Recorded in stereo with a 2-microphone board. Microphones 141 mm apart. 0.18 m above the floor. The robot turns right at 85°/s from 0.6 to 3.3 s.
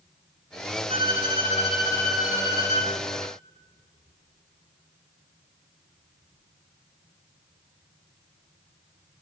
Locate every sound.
0.9 s a violin: 75° left, 3.5 m; by 2.9 s 115° right, 3.5 m